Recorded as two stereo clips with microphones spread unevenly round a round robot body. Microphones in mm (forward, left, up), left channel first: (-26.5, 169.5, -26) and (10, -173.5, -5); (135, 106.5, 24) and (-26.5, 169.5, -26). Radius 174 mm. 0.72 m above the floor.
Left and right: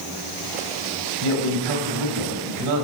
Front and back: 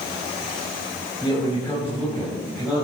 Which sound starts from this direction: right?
A man speaking, at 1.2 s.